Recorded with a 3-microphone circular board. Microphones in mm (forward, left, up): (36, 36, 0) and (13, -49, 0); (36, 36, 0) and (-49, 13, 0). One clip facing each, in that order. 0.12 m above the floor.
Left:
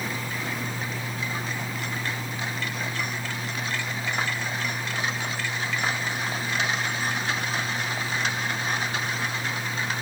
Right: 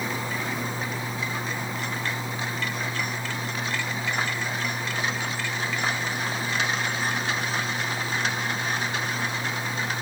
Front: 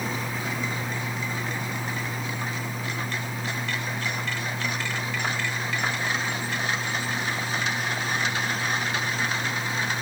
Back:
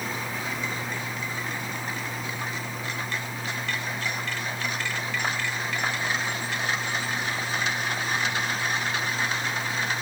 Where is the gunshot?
I don't hear a gunshot.